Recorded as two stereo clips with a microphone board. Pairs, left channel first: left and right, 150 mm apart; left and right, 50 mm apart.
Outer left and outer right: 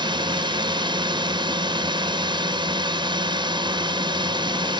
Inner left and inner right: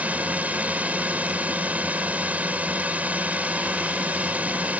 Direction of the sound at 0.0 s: 30° right (ahead or behind).